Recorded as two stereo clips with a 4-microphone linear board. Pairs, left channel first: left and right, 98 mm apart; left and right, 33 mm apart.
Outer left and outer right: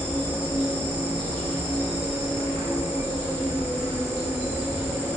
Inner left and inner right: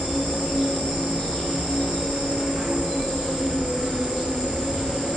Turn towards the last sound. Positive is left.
turn(degrees=15)  # may be behind; listen again after turning